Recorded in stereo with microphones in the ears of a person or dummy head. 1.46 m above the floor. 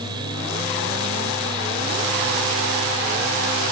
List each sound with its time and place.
0.0 s a fan: 30° right (ahead or behind)